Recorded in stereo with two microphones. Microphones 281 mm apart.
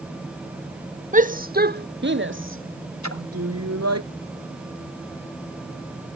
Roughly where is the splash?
Left.